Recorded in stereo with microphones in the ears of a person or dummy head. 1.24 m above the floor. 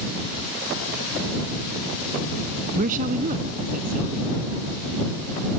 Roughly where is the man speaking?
Right.